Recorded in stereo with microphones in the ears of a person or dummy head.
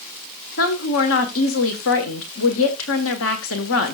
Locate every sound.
0.6 s a woman speaking: 85° left, 1.7 m